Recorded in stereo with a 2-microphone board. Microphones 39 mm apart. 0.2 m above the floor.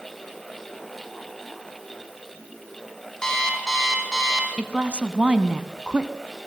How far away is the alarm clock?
About 4.5 m.